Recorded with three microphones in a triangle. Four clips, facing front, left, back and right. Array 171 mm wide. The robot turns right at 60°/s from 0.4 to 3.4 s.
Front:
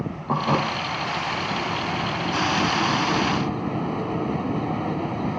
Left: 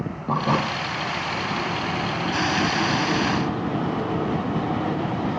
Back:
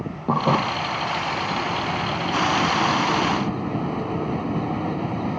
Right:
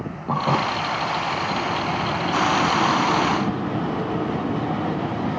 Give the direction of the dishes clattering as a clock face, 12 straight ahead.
6 o'clock.